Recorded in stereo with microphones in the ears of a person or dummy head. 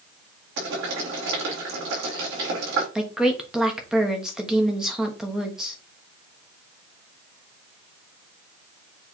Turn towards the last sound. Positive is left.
turn(degrees=0)  # may be behind; listen again after turning